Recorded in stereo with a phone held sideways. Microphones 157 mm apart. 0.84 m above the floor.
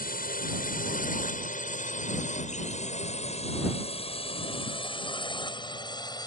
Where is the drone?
65° left (ahead or behind); by 6.3 s 25° left (ahead or behind).